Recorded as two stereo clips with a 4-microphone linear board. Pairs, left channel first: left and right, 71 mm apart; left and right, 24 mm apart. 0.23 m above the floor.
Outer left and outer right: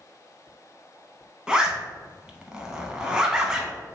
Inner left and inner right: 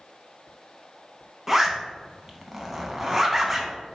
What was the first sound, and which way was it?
A zipper, 10° right (ahead or behind).